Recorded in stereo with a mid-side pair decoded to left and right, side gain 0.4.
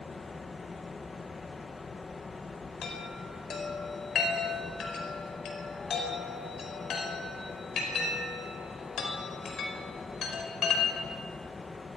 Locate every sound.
0.0 s a fan: 35° left, 1.5 m
2.8 s a chime: 65° left, 5 m